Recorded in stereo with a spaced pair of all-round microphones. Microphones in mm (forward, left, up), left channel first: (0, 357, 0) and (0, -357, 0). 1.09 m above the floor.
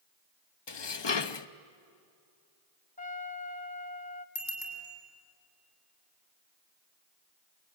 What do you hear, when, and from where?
0.7 s dishes clattering: 40° left (ahead or behind), 0.6 m
3.0 s a trumpet: 10° left (ahead or behind), 1.1 m
4.3 s a bicycle bell: 30° left (ahead or behind), 4 m